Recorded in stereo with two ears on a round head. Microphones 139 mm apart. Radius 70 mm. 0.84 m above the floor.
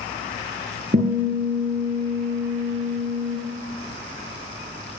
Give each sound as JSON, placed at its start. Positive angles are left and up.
{"t": 0.9, "sound": "a guitar", "side_deg": -50, "distance_m": 6.0}